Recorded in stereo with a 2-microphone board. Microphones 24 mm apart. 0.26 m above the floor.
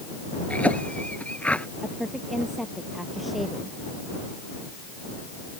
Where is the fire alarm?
No fire alarm in this recording.